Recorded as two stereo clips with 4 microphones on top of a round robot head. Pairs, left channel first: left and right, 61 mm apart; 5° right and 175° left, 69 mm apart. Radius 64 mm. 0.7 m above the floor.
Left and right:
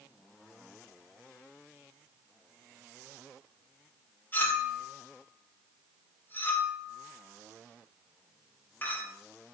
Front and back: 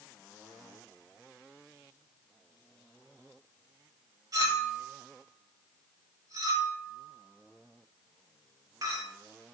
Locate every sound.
4.3 s a clink: 145° left, 2.5 m